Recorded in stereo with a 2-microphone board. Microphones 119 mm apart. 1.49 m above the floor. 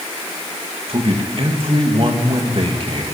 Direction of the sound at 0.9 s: 50° right (ahead or behind).